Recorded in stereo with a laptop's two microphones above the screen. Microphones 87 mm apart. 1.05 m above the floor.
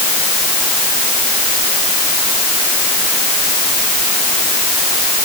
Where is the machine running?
No machine running in this recording.